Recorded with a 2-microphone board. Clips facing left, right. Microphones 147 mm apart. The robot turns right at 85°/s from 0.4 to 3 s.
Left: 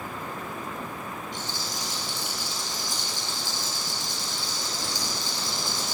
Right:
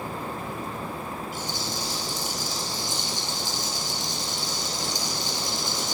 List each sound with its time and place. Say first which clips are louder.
1.3 s a rattle: right 3 dB; 170° right, 1.2 m; by 5.9 s 30° right, 1.2 m